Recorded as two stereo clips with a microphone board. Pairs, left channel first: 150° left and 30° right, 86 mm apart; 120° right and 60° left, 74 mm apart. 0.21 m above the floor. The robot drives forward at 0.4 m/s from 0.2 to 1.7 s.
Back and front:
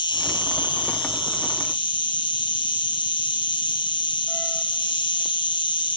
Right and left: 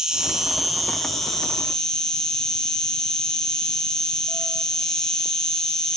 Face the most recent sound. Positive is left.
turn(degrees=160)